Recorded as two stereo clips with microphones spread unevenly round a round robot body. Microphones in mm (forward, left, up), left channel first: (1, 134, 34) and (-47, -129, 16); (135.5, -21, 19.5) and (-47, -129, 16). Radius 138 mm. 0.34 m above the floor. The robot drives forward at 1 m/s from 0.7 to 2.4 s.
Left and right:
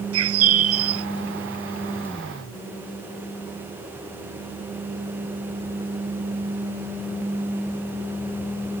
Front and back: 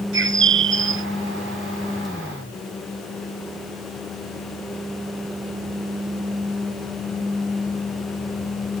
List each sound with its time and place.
0.1 s a bird: 130° right; by 1.1 s 135° right